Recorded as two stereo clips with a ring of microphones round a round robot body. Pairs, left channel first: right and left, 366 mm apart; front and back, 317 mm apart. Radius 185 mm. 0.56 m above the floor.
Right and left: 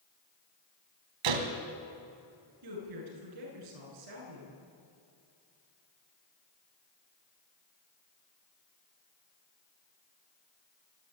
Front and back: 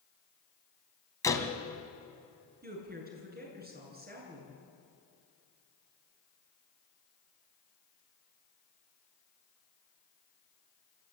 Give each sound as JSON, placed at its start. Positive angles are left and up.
{"t": 1.2, "sound": "a door slam", "azimuth_deg": 80, "distance_m": 2.5}
{"t": 2.6, "sound": "a woman speaking", "azimuth_deg": 120, "distance_m": 8.0}